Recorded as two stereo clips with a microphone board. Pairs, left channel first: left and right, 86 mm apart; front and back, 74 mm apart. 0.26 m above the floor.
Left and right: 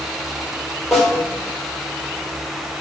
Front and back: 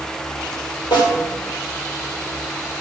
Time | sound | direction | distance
0.9 | a snare drum | 5° right | 3 m